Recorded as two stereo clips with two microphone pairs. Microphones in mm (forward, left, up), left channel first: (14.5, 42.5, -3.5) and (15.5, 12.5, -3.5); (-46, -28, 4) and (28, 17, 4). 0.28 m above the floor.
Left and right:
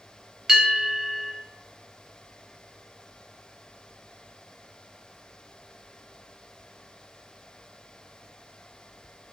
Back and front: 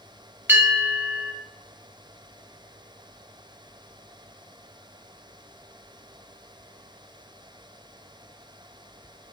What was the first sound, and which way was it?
A bell, 20° right.